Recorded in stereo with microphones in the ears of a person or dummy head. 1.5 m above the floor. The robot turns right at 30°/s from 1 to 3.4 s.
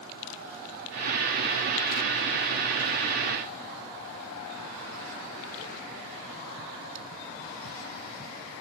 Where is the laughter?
No laughter in this recording.